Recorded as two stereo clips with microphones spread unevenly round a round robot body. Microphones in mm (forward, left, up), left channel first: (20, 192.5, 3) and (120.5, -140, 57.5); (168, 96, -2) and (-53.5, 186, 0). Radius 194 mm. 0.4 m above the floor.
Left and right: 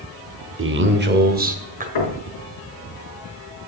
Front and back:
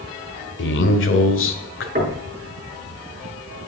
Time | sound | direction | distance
0.6 | a man speaking | 20° right | 1.7 m
1.9 | knocking | 105° left | 4.5 m